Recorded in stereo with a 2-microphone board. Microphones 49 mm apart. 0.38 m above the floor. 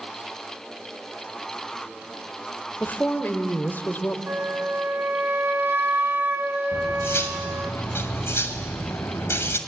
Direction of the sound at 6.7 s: 60° left (ahead or behind).